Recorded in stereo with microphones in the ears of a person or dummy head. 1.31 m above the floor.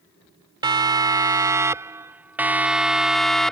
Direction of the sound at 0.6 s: 20° right (ahead or behind).